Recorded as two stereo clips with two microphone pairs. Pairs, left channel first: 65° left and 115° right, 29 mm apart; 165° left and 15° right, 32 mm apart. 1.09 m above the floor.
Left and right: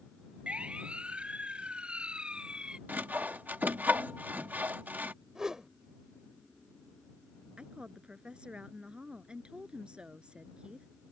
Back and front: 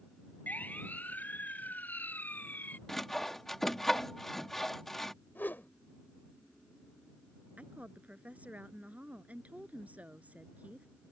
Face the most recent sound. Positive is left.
turn(degrees=-60)